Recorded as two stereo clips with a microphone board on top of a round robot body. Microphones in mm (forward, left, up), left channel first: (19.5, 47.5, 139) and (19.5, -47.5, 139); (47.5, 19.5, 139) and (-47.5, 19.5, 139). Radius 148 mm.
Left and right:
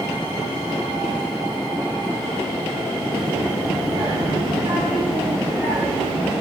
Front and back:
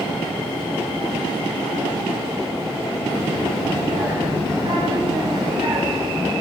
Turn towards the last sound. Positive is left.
turn(degrees=-145)